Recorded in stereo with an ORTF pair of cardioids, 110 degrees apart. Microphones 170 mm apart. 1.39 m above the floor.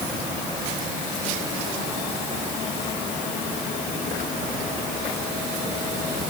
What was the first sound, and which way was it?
Only background noise.